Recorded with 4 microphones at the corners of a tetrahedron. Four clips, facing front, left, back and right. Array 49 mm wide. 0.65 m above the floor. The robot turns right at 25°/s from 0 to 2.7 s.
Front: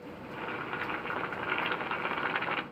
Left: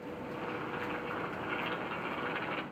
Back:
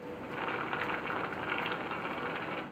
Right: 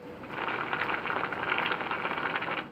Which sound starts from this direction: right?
Boiling, at 0.2 s.